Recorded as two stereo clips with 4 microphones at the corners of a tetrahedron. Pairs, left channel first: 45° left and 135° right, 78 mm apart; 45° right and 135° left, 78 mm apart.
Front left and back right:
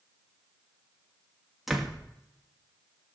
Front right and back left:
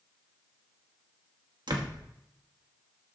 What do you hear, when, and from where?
1.7 s a door slam: 140° left, 1.1 m